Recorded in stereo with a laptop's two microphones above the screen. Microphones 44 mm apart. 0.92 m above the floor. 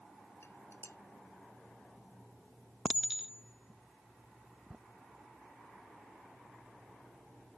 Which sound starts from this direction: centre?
A clink, at 2.9 s.